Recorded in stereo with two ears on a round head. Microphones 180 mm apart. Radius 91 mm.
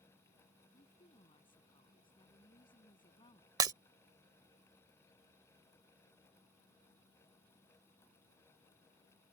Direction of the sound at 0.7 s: 25° left (ahead or behind).